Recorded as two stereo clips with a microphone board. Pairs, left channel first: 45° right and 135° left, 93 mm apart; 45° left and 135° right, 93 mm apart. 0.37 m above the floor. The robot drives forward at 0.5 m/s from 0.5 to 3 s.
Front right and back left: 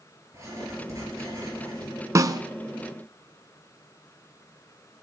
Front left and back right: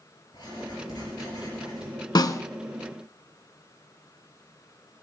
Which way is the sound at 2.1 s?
85° left.